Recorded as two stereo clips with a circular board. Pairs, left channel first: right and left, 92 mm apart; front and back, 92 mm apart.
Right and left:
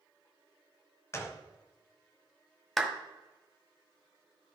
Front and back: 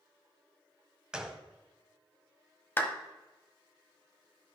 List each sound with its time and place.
1.1 s a gunshot: 105° right, 1.0 m
2.8 s a clap: 5° right, 1.1 m